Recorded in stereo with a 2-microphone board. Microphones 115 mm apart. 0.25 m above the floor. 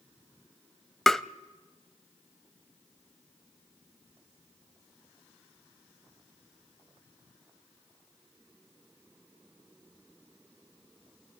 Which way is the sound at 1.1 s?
5° left (ahead or behind).